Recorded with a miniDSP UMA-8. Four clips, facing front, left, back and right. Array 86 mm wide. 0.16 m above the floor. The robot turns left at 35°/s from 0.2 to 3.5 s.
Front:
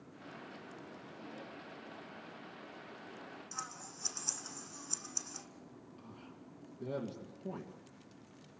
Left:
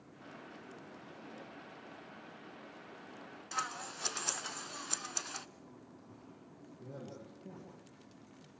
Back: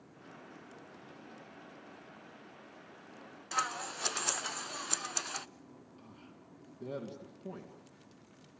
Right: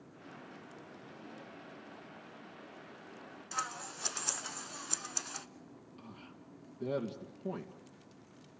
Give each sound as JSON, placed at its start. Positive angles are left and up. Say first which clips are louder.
{"t": 3.5, "sound": "scissors", "louder": "even, back 16 dB", "azimuth_deg": 175, "distance_m": 0.5}
{"t": 6.0, "sound": "a man speaking", "louder": "right 3 dB, front 2 dB", "azimuth_deg": -85, "distance_m": 1.9}